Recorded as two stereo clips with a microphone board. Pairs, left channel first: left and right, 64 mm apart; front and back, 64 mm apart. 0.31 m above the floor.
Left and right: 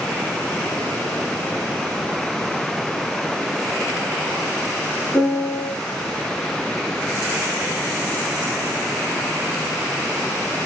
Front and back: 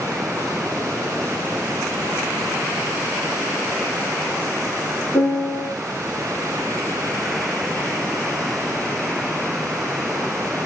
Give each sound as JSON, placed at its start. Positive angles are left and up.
{"t": 5.1, "sound": "a piano", "azimuth_deg": 20, "distance_m": 2.5}